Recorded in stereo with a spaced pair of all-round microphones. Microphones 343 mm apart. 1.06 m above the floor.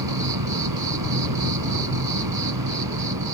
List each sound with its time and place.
0.0 s an insect: 80° right